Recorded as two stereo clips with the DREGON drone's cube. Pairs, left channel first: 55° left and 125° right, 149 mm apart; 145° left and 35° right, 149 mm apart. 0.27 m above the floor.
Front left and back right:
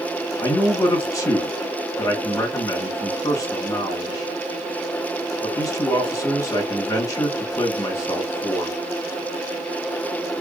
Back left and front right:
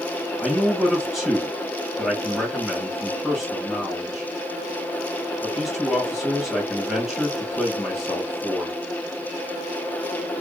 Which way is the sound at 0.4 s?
50° left.